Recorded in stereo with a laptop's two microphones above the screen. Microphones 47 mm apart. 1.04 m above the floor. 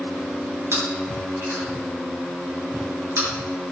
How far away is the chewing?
About 8.5 m.